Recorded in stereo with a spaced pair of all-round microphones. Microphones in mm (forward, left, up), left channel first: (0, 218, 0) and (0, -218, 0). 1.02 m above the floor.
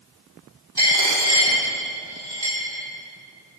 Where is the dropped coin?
60° right (ahead or behind), 2 m.